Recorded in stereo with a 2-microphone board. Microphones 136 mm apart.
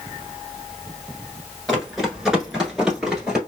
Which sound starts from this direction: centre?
Running footsteps, at 1.7 s.